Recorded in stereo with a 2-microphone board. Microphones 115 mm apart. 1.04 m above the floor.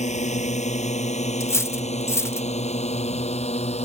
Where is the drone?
85° left; by 3.8 s 65° left (ahead or behind).